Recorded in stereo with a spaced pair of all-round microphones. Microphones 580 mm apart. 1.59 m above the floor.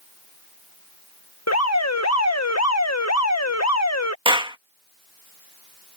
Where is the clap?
10° right (ahead or behind).